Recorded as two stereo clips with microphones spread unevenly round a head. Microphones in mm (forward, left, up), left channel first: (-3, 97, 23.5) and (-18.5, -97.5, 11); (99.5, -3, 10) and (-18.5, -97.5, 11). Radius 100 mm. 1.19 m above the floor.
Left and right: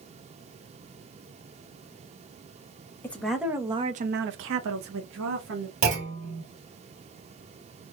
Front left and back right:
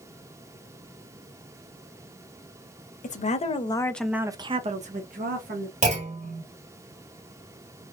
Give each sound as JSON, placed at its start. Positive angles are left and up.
{"t": 3.0, "sound": "a woman speaking", "azimuth_deg": 5, "distance_m": 1.0}
{"t": 5.8, "sound": "a clunk", "azimuth_deg": -105, "distance_m": 2.5}